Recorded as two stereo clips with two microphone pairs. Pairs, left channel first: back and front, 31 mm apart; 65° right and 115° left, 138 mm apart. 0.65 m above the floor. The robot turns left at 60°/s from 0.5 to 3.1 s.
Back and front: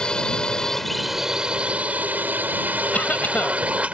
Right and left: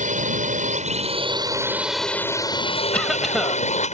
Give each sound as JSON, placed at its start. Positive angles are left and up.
{"t": 0.0, "sound": "a drone", "azimuth_deg": 115}
{"t": 2.9, "sound": "a cough", "azimuth_deg": -145}